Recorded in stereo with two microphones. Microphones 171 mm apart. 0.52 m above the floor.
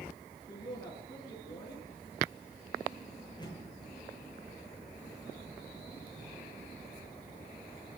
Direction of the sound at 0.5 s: 20° left (ahead or behind).